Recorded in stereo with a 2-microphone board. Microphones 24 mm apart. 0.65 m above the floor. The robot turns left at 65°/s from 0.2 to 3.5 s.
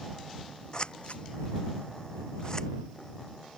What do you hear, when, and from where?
0.7 s scissors: 30° left (ahead or behind); by 2.7 s 20° left (ahead or behind)